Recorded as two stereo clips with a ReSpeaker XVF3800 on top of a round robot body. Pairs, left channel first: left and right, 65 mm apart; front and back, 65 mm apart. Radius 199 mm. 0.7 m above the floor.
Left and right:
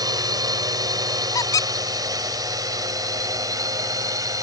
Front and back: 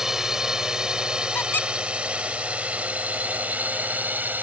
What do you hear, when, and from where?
0.0 s a drone: 100° right; by 4.4 s 120° right
1.4 s a squeak: 60° left